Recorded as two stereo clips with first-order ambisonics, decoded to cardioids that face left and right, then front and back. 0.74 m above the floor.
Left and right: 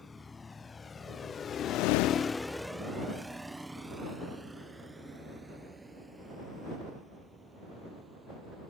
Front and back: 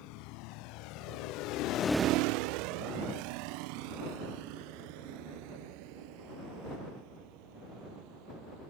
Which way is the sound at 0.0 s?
15° left.